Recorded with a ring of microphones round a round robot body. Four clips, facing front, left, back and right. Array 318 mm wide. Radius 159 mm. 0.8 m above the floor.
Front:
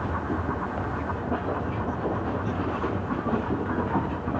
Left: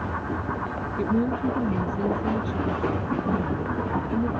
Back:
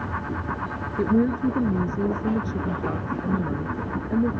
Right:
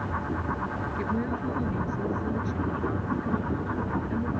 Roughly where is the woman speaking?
Behind.